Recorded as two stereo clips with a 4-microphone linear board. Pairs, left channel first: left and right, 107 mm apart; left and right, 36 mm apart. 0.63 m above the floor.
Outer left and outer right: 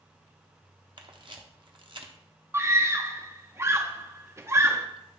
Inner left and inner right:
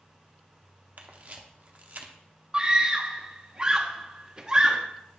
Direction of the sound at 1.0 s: 50° right (ahead or behind).